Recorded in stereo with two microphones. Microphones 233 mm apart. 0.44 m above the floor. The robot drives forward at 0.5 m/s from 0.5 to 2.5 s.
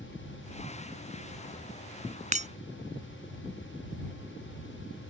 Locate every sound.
2.3 s breaking glass: 30° right (ahead or behind)